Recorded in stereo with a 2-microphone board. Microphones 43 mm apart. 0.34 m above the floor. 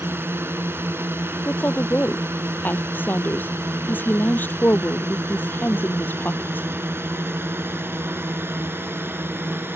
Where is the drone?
65° right (ahead or behind); by 9.8 s 60° right (ahead or behind).